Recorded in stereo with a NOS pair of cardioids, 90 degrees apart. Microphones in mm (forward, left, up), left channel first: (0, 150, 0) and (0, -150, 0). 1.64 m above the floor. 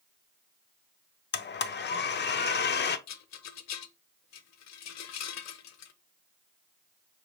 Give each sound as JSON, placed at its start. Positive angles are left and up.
{"t": 1.3, "sound": "a blender", "azimuth_deg": 35, "distance_m": 0.6}
{"t": 3.1, "sound": "a rattle", "azimuth_deg": 60, "distance_m": 0.7}